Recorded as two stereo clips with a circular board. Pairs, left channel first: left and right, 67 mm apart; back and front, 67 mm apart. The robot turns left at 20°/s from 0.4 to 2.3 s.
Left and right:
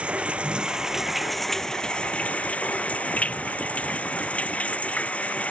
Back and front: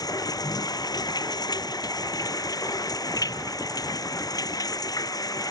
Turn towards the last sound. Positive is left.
turn(degrees=160)